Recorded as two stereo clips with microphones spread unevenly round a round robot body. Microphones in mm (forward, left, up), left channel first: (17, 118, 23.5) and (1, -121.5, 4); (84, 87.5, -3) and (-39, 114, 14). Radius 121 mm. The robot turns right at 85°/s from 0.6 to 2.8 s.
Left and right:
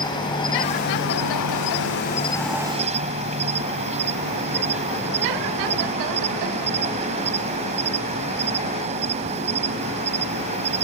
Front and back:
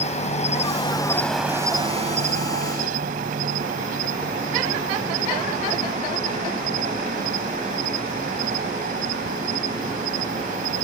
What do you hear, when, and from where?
0.0 s an insect: 15° left; by 10.8 s 160° right